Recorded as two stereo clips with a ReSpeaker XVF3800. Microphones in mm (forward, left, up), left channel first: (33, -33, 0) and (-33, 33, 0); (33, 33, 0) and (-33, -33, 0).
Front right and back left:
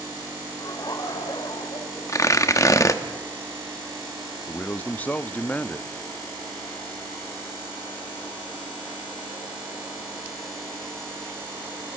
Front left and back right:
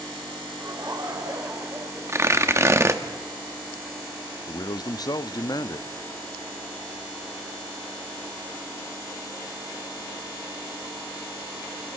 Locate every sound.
0.6 s laughter: 90° right, 2 m; by 2.8 s 60° right, 2.5 m
2.1 s tearing paper: 85° right, 1.1 m
4.5 s a man speaking: 20° left, 0.6 m